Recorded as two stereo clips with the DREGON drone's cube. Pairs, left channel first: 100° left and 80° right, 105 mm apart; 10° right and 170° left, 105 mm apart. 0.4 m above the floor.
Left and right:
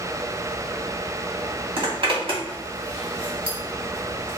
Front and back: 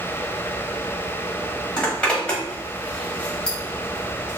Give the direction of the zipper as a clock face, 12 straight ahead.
3 o'clock.